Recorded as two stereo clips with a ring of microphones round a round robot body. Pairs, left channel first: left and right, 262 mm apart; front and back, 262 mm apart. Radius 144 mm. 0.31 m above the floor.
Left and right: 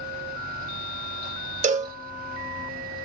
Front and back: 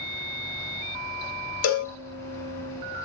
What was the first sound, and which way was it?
A cowbell, 30° right.